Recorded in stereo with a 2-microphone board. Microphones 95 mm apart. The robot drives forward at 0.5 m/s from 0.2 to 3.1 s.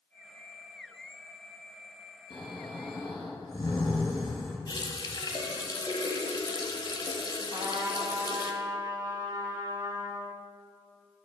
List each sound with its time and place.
2.3 s snoring: 55° left (ahead or behind), 2.5 m; by 4.6 s 50° left (ahead or behind), 2.5 m
4.7 s a running tap: 45° left (ahead or behind), 1.1 m
7.5 s a trumpet: 35° right (ahead or behind), 2 m